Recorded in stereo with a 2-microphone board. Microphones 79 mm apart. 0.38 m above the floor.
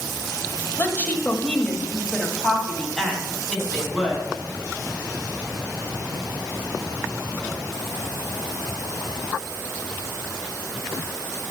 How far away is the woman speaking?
About 1.2 m.